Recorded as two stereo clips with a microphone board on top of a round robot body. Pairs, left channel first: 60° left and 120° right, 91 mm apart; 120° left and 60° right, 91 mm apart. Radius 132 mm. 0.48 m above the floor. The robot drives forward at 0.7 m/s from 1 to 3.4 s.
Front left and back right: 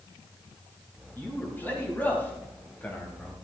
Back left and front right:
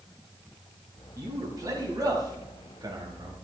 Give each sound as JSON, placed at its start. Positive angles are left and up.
{"t": 1.2, "sound": "a man speaking", "azimuth_deg": -10, "distance_m": 5.0}